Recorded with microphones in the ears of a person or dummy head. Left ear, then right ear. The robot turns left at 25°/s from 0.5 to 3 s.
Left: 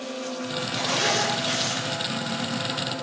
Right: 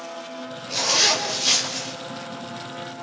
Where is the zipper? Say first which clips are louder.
Right 5 dB; 35° right, 5 m; by 1.9 s 65° right, 5 m.